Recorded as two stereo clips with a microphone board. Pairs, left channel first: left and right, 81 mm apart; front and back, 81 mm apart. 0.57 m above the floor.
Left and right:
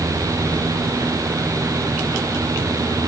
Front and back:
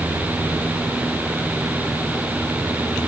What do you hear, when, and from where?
Only background noise.